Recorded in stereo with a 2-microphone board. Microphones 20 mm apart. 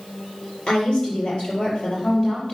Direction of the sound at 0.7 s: 50° left (ahead or behind).